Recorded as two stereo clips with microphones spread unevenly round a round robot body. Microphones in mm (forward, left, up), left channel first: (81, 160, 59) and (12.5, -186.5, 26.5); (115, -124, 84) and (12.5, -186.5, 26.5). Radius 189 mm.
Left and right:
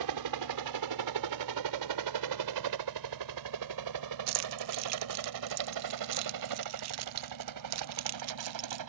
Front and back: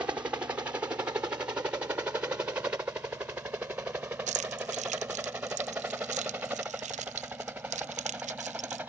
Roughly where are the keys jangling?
Behind right.